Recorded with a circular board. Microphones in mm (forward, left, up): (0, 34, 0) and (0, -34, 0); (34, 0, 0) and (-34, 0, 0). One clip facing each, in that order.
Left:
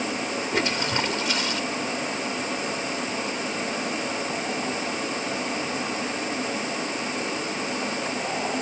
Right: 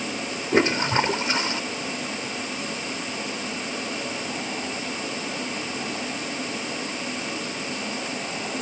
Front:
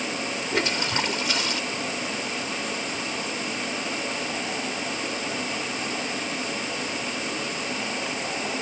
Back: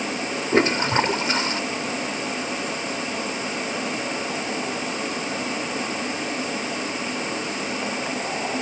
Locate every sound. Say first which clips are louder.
0.5 s a toilet flushing: right 7 dB, back 8 dB; 140° right